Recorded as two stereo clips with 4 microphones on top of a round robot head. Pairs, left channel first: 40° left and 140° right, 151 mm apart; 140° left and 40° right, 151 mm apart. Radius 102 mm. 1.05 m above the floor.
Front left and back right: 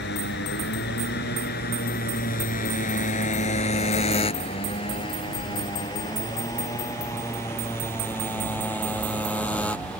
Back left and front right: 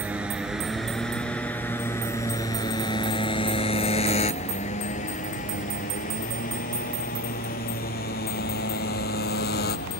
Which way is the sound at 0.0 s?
40° left.